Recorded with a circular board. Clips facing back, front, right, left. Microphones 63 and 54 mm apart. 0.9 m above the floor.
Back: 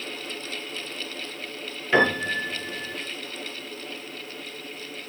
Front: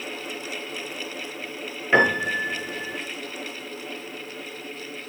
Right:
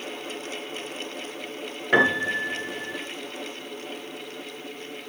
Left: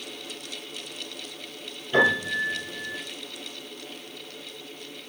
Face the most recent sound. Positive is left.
turn(degrees=-75)